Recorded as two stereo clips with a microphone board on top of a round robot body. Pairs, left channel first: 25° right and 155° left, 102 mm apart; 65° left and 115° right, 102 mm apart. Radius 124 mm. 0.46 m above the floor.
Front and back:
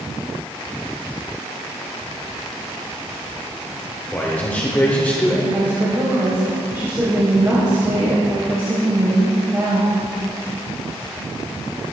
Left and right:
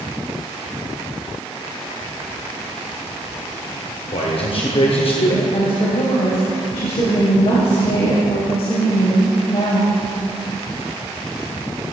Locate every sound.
4.1 s a man speaking: 50° left, 1.8 m
5.5 s a woman speaking: 90° left, 3 m